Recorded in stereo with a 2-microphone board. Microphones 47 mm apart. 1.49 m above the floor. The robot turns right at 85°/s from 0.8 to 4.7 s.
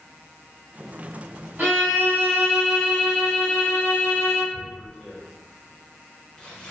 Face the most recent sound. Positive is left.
turn(degrees=15)  # may be behind; listen again after turning